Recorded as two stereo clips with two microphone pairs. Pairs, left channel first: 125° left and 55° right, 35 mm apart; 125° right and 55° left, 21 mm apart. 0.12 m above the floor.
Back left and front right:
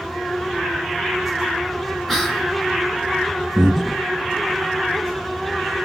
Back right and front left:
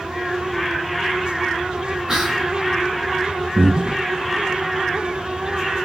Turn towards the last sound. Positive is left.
turn(degrees=40)